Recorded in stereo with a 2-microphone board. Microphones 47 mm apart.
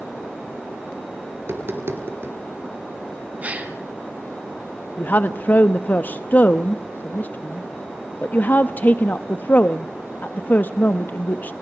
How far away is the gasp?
About 2.5 m.